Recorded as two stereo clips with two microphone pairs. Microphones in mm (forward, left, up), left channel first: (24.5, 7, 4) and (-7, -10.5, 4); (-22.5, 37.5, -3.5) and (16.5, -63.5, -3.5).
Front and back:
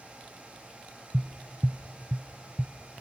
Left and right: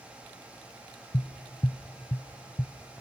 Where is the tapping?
120° left, 0.9 m.